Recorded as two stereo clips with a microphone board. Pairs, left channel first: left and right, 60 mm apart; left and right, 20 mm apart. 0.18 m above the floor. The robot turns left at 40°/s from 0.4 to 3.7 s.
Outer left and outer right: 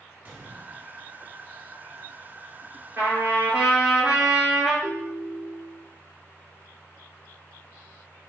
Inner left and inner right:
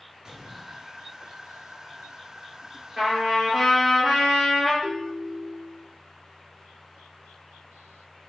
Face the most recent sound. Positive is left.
turn(degrees=50)  # may be behind; listen again after turning